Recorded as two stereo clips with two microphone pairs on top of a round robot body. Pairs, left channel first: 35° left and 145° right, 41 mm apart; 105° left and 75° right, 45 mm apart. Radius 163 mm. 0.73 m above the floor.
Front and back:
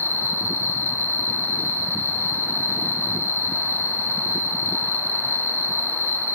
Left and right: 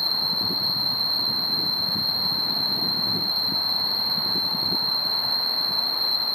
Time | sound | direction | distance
0.0 | an insect | 20° left | 1.5 m